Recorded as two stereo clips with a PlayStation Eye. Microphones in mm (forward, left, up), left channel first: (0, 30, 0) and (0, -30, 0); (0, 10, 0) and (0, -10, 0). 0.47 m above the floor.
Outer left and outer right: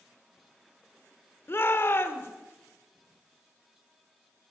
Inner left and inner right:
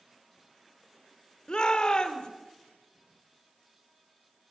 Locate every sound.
1.5 s a shout: 40° left (ahead or behind), 1.3 m